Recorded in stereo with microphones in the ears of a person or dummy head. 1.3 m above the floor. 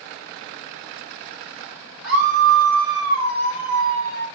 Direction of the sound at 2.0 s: 75° right (ahead or behind).